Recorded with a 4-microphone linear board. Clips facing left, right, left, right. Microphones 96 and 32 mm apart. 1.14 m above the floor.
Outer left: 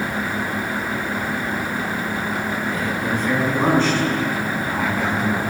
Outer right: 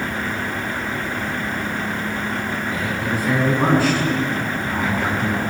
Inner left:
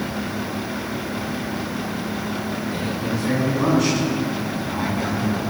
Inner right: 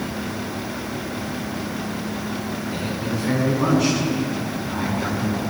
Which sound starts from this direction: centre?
A man speaking, at 2.7 s.